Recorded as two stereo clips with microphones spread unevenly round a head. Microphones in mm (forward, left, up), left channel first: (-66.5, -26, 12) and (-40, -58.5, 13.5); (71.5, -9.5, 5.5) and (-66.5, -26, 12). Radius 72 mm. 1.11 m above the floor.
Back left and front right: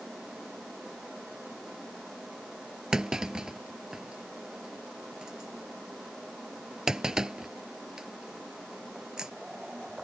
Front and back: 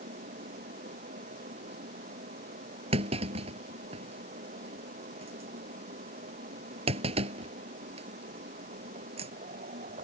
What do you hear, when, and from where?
0.0 s a fan: 135° right
2.9 s a clunk: 125° right